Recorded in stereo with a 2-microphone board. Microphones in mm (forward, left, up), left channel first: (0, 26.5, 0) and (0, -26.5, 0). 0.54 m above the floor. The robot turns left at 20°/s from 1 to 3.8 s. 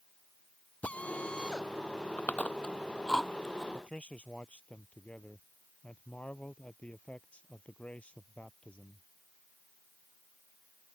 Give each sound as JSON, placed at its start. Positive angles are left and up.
{"t": 0.8, "sound": "a drill", "side_deg": 25}
{"t": 2.2, "sound": "chewing", "side_deg": 30}
{"t": 3.7, "sound": "a man speaking", "side_deg": 25}